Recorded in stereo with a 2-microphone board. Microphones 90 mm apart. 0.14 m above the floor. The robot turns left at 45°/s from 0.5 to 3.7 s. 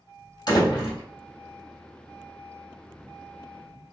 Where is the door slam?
55° left (ahead or behind), 3 m; by 1.0 s 70° left (ahead or behind), 3 m.